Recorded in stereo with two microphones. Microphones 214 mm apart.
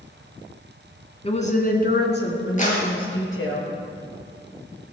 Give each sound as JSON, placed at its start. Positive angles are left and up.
{"t": 1.2, "sound": "a woman speaking", "side_deg": 30, "distance_m": 2.0}
{"t": 2.6, "sound": "a clap", "side_deg": 35, "distance_m": 5.0}